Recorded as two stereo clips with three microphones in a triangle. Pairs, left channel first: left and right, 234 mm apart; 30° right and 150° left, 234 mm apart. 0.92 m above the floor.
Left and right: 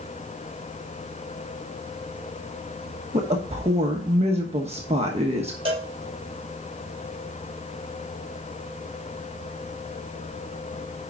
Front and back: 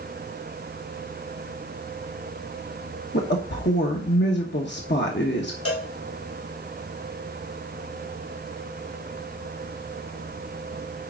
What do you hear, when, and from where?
3.1 s a woman speaking: 35° right, 1.3 m
5.7 s a cowbell: 25° right, 5 m